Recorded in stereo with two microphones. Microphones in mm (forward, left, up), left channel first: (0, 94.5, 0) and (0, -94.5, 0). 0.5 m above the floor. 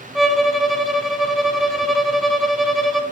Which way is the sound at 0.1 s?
Centre (ahead or behind).